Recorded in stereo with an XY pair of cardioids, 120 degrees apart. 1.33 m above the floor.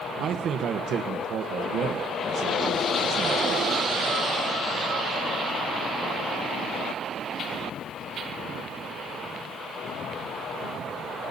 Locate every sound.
0.2 s a man speaking: 55° right, 1.0 m